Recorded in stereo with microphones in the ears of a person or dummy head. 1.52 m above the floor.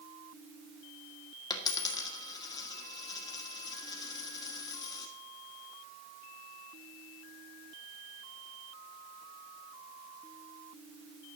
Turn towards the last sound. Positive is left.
turn(degrees=25)  # may be behind; listen again after turning